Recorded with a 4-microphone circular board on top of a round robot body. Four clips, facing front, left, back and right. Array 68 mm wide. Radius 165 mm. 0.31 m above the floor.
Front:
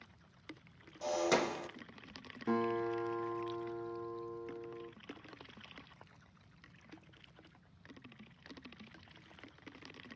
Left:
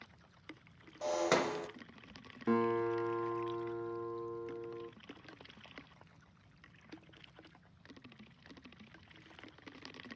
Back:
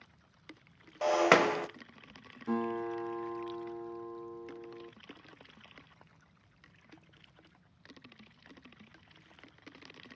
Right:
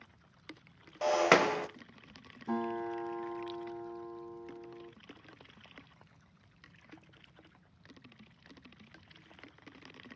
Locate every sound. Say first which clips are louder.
1.0 s breaking glass: right 6 dB, back 8 dB; 145° right, 1.1 m
2.5 s a guitar: left 3 dB, even; 75° left, 3.5 m